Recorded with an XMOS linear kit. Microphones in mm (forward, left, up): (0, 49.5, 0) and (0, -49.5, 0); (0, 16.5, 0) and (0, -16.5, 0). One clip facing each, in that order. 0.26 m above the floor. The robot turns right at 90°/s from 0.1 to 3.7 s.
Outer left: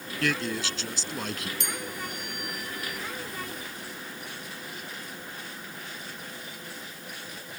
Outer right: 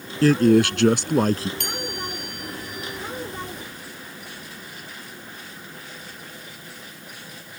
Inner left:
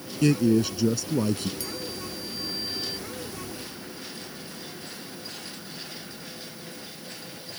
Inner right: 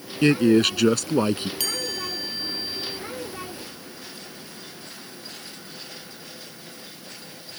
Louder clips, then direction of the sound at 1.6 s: Outer right 4 dB, inner right 6 dB; 115° right.